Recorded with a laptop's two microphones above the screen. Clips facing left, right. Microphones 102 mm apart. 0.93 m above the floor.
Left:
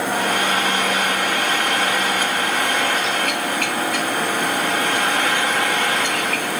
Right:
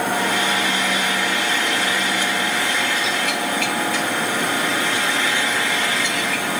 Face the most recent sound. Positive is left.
turn(degrees=60)  # may be behind; listen again after turning